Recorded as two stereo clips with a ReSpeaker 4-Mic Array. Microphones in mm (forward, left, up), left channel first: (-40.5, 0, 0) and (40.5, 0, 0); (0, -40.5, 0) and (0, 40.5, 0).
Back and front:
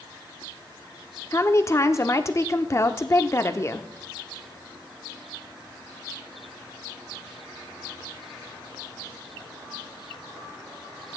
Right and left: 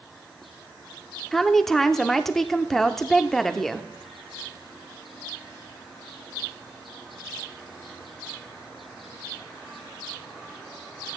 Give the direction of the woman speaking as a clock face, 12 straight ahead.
6 o'clock.